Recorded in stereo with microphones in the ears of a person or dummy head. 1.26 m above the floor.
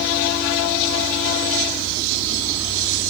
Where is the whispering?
No whispering in this recording.